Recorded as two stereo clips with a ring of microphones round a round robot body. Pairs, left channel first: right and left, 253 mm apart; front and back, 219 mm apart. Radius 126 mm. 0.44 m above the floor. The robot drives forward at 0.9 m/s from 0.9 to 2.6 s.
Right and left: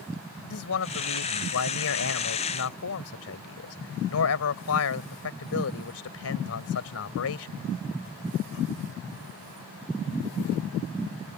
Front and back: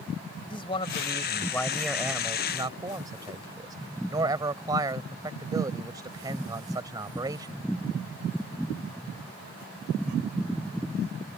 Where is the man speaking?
65° right; by 7.5 s 105° right.